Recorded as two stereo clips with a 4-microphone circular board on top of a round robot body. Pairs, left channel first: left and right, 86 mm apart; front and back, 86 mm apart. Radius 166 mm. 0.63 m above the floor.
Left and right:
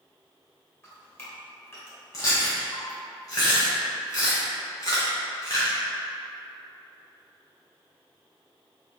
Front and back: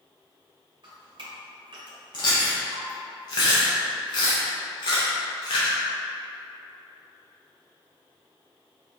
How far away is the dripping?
About 1.4 m.